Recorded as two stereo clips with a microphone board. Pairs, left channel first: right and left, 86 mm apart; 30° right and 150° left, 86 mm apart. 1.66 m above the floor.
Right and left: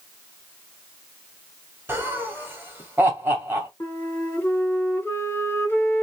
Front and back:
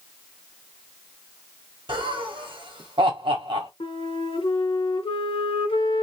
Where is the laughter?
160° left, 0.8 m.